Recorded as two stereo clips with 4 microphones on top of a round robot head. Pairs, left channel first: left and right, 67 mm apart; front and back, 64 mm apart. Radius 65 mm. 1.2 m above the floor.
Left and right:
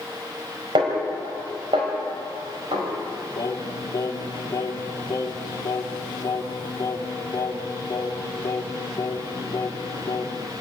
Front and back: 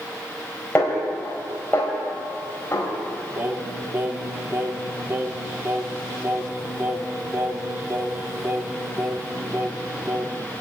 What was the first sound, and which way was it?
A snare drum, 70° right.